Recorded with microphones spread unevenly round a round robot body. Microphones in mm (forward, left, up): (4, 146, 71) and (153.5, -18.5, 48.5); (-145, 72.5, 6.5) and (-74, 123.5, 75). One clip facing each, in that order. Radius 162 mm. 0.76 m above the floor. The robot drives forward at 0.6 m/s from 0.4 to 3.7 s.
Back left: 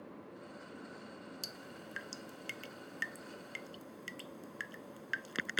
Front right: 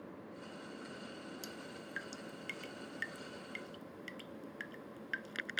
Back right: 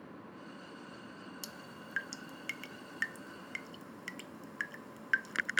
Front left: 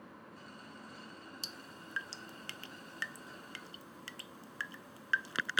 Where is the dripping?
95° left; by 5.6 s 105° left.